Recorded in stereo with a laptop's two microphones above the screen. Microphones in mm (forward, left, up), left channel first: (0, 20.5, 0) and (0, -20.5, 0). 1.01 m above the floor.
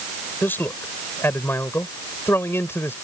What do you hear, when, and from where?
0.4 s a man speaking: 60° left (ahead or behind); by 3.0 s 80° left